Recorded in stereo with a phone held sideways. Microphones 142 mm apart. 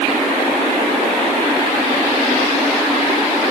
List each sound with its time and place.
Only background noise.